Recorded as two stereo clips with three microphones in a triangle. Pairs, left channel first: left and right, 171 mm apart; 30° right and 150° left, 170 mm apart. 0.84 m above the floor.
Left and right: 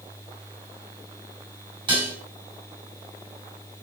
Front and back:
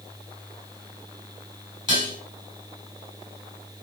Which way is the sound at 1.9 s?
150° right.